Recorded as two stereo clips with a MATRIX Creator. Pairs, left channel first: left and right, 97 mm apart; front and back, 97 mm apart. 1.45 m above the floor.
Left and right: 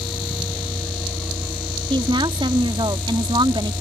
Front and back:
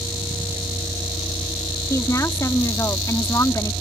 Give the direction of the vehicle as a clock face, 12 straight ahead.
4 o'clock.